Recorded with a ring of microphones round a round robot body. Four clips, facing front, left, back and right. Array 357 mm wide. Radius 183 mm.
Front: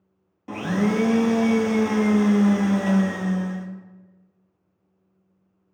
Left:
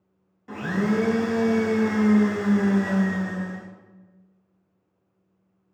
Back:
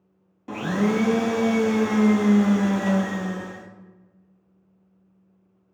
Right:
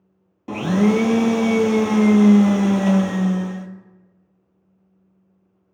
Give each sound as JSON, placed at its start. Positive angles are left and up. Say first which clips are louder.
{"t": 0.5, "sound": "a blender", "louder": "right 7 dB, even", "azimuth_deg": -90, "distance_m": 0.6}